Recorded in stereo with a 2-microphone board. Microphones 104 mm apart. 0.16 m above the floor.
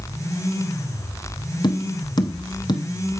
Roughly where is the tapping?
Left.